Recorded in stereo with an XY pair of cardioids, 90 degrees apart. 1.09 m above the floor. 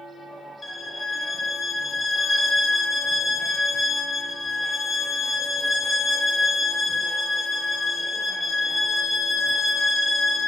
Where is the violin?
50° left, 0.7 m.